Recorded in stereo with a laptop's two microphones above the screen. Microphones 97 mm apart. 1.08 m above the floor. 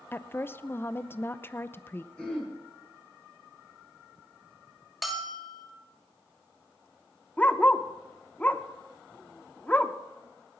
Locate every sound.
0.1 s a woman speaking: 25° left (ahead or behind), 0.5 m
2.2 s throat clearing: 10° left (ahead or behind), 9.5 m
5.0 s a bell: centre (ahead or behind), 2.5 m
7.4 s a dog barking: 15° left (ahead or behind), 0.9 m